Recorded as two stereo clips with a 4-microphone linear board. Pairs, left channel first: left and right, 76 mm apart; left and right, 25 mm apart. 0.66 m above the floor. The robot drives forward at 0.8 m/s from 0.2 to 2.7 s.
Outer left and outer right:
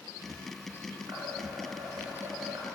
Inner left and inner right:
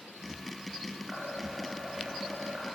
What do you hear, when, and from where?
1.1 s dishes clattering: 55° right (ahead or behind), 7 m; by 2.7 s 50° right (ahead or behind), 8 m